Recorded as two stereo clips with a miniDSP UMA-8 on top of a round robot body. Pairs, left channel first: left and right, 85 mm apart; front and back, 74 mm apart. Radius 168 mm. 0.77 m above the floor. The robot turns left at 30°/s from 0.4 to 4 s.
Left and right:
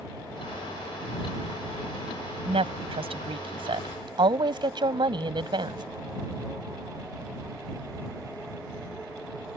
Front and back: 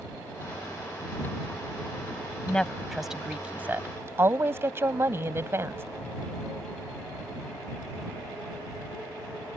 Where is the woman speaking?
75° right; by 5.8 s 125° right.